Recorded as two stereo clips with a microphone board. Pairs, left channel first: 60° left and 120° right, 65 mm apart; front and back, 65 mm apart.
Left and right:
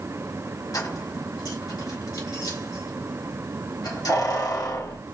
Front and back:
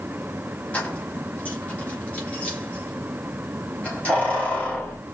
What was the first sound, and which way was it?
Keys jangling, 70° left.